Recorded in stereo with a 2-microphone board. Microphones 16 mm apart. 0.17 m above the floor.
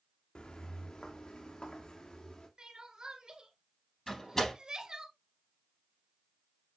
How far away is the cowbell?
I don't hear a cowbell.